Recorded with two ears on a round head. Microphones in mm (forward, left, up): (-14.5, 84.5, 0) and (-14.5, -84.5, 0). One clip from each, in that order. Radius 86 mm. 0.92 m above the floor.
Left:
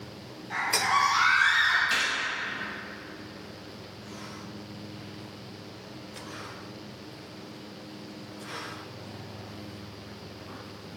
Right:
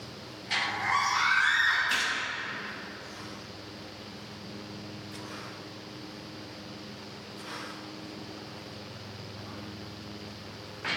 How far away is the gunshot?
About 1.3 m.